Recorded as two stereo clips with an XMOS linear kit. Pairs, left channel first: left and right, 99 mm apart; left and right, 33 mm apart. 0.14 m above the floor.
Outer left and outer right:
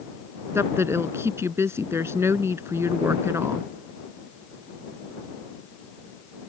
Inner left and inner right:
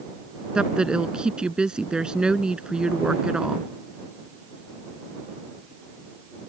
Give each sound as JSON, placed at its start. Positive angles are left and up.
{"t": 0.6, "sound": "a woman speaking", "side_deg": -25}